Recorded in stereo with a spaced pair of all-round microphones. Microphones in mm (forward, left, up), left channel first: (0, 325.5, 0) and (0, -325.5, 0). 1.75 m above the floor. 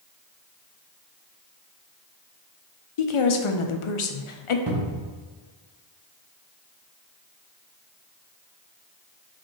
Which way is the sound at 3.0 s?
55° left (ahead or behind).